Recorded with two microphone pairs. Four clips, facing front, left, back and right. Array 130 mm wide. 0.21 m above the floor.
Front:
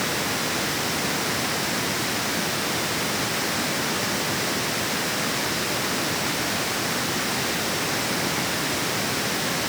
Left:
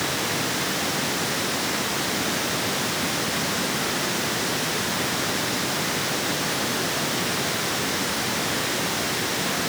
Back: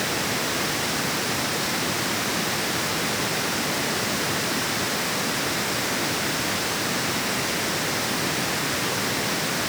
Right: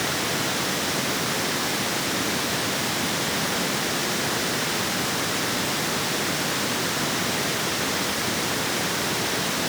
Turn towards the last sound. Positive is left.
No sound to turn to.